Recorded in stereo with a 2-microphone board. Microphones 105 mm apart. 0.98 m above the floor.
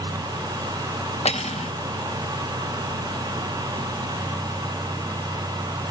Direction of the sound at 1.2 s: 70° left (ahead or behind).